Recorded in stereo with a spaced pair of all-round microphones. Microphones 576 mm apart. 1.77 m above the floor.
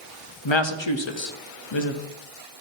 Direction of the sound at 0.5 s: 50° left (ahead or behind).